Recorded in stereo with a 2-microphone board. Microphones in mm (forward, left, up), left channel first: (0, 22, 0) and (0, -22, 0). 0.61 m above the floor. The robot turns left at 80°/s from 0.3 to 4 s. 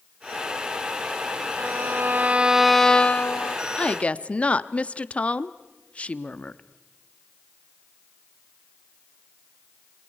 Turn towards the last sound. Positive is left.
turn(degrees=30)  # may be behind; listen again after turning